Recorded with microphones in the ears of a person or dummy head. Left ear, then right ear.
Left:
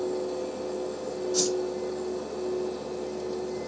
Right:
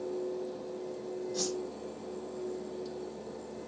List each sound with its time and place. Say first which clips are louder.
1.3 s a whoosh: left 9 dB; 65° left (ahead or behind), 4 m